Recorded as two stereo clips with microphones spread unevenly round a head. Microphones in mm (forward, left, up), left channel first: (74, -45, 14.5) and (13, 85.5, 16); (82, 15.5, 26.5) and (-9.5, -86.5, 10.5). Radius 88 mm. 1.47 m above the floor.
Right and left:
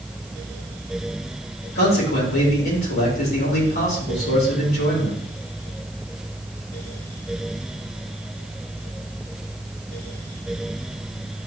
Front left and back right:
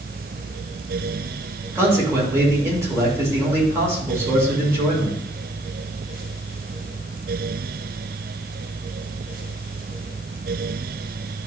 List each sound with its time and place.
1.8 s a man speaking: 60° right, 5 m